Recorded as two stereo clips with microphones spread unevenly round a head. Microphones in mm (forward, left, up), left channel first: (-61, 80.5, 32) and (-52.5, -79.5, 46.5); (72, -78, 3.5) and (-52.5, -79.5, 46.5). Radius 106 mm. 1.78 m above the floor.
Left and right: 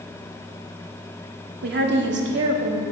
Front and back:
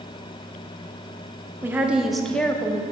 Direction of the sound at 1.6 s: 105° right.